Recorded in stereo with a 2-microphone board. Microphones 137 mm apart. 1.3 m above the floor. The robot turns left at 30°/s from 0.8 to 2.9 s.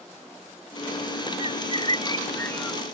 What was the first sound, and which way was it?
A bird, 50° left.